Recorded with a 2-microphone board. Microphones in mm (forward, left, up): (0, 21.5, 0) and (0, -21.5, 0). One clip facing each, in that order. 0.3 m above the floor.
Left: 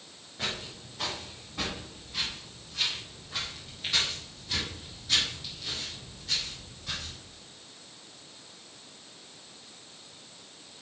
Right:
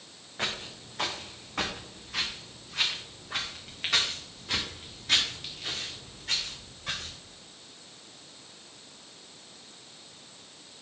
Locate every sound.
0.4 s footsteps: 55° right (ahead or behind), 2 m; by 7.1 s 60° right (ahead or behind), 4 m